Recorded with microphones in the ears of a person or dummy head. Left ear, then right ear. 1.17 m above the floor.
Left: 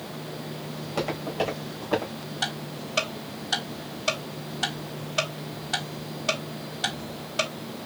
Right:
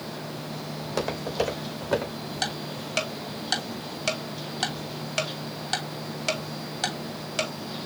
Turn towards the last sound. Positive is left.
turn(degrees=-75)  # may be behind; listen again after turning